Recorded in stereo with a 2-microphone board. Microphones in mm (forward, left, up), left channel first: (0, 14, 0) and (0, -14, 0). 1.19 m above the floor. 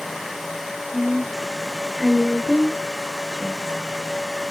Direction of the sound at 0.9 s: 15° right (ahead or behind).